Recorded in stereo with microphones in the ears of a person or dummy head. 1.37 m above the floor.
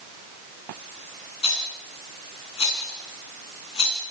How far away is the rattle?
About 6.5 m.